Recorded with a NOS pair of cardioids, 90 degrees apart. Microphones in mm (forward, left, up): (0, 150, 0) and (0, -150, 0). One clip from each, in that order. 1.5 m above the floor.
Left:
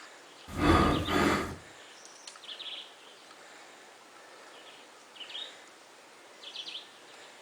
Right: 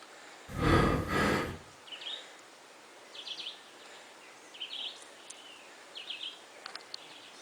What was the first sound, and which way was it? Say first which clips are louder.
Breathing: left 3 dB; 45° left.